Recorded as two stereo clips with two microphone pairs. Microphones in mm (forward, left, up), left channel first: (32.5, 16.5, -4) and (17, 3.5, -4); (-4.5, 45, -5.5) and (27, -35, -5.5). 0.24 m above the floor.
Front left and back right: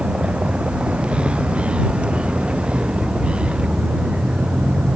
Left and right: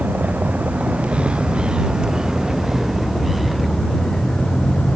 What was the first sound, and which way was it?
A vehicle, 140° right.